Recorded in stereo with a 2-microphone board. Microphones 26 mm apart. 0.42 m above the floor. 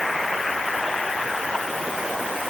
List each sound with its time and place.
Only background noise.